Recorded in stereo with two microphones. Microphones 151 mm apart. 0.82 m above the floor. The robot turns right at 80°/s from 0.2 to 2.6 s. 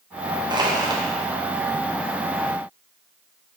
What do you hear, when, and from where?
0.5 s crushing: 30° right (ahead or behind), 0.6 m; by 1.0 s 25° right (ahead or behind), 0.6 m